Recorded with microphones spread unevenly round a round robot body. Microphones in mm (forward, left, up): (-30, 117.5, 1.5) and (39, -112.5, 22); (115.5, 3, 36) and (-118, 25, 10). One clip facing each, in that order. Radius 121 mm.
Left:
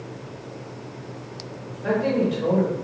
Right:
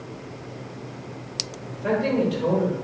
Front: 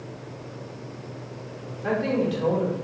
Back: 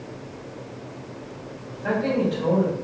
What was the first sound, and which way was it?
A man speaking, straight ahead.